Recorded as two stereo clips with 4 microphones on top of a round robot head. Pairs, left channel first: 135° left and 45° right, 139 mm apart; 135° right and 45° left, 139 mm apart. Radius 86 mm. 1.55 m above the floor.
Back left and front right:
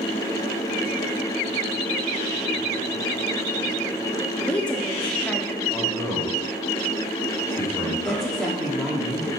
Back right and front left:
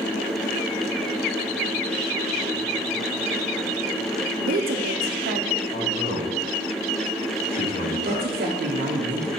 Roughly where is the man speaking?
Behind right.